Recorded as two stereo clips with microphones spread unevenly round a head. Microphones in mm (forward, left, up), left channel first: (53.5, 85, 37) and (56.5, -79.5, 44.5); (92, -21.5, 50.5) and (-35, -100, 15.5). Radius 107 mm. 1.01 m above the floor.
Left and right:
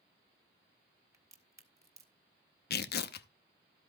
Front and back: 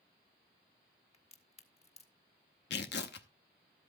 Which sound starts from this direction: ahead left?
Tearing paper, at 2.7 s.